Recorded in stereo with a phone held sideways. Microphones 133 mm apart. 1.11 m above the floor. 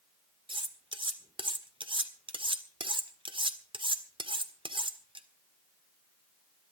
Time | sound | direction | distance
0.5 | cutlery clinking | 40° right (ahead or behind) | 1.7 m